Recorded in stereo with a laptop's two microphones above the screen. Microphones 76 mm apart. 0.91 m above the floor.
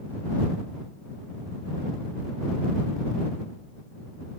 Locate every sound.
Only background noise.